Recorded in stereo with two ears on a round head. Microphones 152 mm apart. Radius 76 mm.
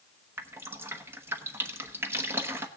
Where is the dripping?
15° right (ahead or behind), 1.0 m.